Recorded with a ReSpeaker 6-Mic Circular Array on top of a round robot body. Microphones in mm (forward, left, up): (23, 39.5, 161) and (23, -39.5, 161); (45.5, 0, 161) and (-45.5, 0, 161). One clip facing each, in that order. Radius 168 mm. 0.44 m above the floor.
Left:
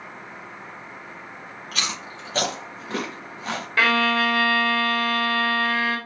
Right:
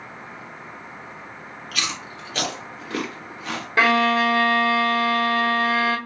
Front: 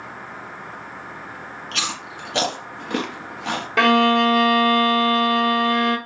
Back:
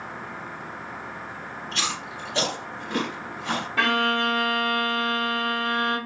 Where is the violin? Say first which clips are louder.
Right 3 dB, front 8 dB; 20° right, 0.6 m.